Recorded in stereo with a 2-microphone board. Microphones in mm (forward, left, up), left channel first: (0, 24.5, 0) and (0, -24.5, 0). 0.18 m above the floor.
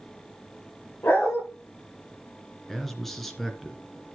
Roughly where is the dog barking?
Left.